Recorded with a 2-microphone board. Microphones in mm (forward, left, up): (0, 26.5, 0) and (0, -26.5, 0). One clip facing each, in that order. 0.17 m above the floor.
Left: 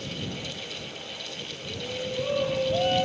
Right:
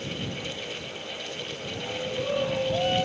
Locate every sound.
1.7 s a shout: centre (ahead or behind); by 3.1 s 5° left (ahead or behind)